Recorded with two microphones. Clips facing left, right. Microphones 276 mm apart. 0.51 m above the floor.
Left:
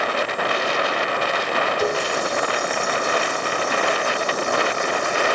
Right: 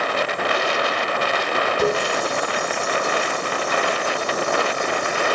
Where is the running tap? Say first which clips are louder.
Right 4 dB; 65° right (ahead or behind), 2.5 m.